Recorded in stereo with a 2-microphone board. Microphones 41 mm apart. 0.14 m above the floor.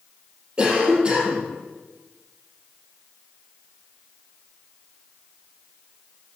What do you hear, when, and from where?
0.6 s a cough: 25° right (ahead or behind), 5 m